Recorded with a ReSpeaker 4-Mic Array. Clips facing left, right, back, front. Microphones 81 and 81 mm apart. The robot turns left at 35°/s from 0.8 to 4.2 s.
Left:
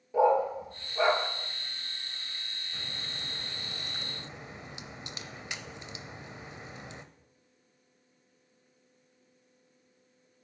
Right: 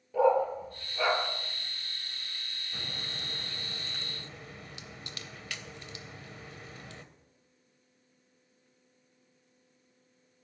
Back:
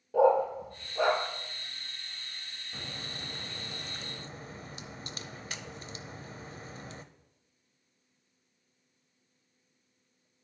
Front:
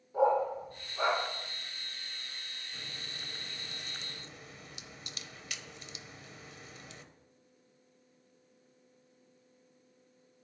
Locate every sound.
0.1 s a dog barking: 160° left, 1.6 m; by 1.2 s 145° left, 1.6 m
2.7 s a crack: 160° right, 0.5 m; by 7.0 s 150° left, 0.5 m